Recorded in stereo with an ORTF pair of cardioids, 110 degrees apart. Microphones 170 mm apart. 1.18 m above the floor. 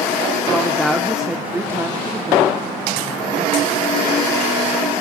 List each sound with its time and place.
0.5 s a woman speaking: 10° left, 3 m; by 3.7 s 40° right, 3.5 m